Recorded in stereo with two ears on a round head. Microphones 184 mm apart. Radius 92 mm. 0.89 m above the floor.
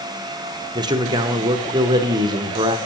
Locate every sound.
0.8 s a man speaking: 20° right (ahead or behind), 0.8 m